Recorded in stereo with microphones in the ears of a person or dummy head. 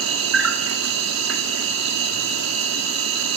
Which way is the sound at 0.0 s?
70° right (ahead or behind).